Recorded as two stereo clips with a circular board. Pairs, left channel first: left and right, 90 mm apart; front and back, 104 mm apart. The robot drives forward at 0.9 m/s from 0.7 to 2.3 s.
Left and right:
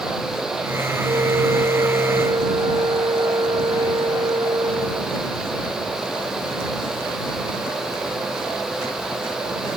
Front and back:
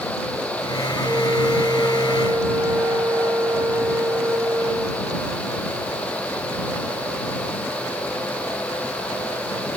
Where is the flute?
115° right; by 5.2 s 120° right.